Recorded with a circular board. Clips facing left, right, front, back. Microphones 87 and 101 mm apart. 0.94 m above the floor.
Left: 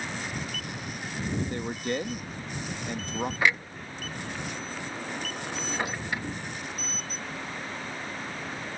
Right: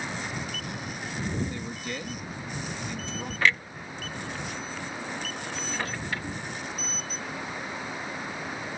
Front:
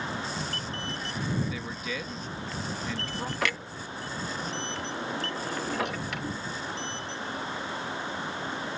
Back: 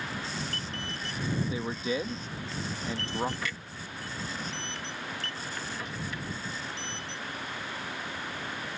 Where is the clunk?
15° left.